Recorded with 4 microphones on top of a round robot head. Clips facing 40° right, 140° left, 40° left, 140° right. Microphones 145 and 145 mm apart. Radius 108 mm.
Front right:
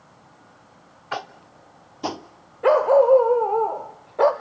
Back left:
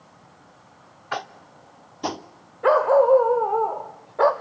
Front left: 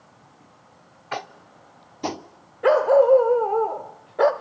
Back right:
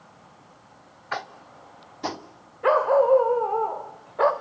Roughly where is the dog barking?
Ahead left.